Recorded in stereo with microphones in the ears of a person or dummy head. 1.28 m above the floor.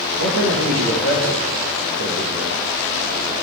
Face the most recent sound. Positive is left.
turn(degrees=-80)